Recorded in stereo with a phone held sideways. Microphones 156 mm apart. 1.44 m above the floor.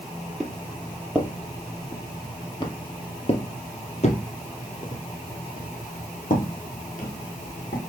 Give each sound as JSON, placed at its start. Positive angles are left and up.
{"t": 0.4, "sound": "footsteps", "side_deg": 0, "distance_m": 2.0}